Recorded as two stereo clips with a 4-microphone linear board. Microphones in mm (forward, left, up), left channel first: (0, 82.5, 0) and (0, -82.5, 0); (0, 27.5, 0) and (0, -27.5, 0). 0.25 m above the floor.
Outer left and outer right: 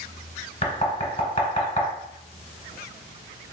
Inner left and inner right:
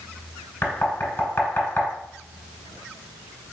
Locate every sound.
0.6 s knocking: 40° left (ahead or behind), 1.2 m